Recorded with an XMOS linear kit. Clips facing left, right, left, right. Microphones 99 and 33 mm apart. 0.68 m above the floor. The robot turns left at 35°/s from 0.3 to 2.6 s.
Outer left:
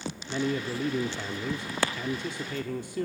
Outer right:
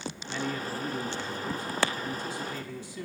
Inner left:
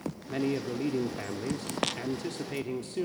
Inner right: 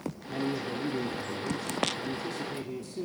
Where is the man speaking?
145° left, 1.2 m; by 3.1 s 60° left, 1.2 m.